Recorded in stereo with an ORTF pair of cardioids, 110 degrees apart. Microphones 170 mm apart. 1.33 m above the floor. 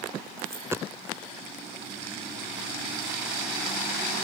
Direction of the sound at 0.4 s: 15° right.